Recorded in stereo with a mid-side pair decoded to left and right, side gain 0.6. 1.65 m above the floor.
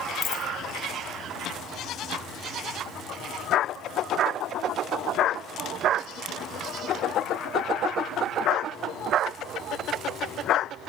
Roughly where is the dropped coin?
Ahead left.